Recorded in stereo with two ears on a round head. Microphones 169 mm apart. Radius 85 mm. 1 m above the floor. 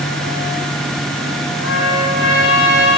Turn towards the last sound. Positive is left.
turn(degrees=75)  # may be behind; listen again after turning